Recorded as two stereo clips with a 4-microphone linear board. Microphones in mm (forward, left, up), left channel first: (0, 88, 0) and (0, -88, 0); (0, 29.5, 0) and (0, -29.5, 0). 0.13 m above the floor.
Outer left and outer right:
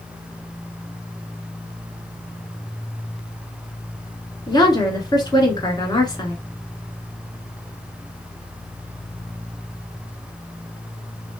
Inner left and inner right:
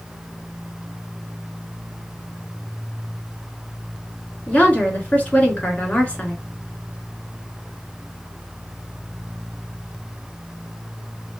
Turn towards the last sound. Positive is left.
turn(degrees=25)  # may be behind; listen again after turning